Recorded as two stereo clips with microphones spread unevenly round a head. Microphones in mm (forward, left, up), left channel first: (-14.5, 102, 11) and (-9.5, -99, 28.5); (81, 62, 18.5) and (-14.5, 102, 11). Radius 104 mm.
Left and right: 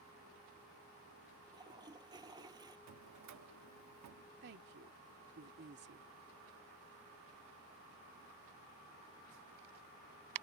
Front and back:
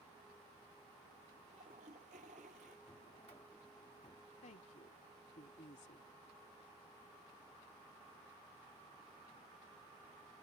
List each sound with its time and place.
1.5 s a toilet flushing: 160° right
2.9 s a drawer: 85° right
4.4 s a woman speaking: 50° right